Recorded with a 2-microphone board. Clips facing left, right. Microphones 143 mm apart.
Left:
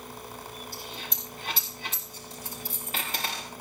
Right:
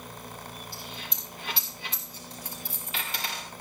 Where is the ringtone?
I don't hear a ringtone.